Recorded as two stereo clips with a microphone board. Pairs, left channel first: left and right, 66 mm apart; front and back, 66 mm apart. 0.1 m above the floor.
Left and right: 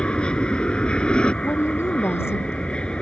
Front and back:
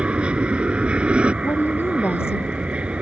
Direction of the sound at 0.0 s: 140° left.